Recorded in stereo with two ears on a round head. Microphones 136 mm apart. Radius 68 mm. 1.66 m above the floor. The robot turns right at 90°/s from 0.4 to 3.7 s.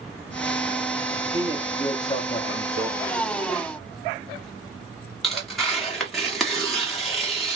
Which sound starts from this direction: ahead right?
A man speaking, at 1.2 s.